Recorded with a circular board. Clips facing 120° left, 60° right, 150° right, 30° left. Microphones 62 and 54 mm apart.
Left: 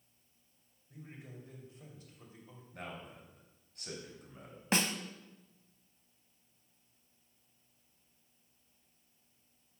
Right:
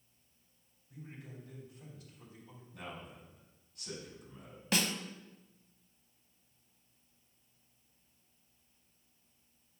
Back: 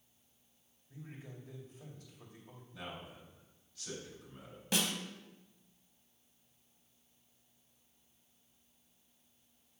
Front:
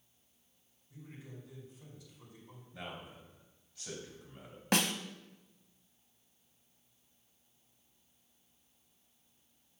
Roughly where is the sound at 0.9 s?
Behind.